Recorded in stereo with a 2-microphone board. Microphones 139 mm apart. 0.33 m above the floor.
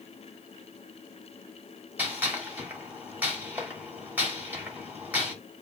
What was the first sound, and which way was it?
A gunshot, 15° right (ahead or behind).